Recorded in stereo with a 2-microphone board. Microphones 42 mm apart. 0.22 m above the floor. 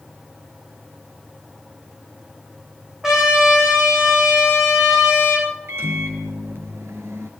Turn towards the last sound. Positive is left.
turn(degrees=-70)  # may be behind; listen again after turning